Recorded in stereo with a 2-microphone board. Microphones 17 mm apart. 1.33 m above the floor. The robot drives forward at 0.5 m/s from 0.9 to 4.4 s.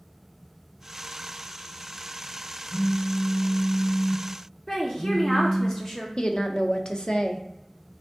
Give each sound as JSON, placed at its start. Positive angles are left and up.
{"t": 2.7, "sound": "a phone buzzing", "side_deg": 50, "distance_m": 1.5}
{"t": 4.7, "sound": "a woman speaking", "side_deg": 25, "distance_m": 0.7}
{"t": 6.2, "sound": "a woman speaking", "side_deg": 65, "distance_m": 0.6}